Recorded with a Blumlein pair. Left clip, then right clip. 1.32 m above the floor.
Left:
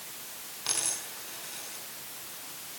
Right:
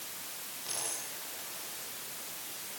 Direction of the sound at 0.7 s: 60° left.